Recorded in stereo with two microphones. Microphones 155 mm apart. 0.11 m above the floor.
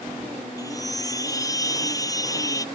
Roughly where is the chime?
Left.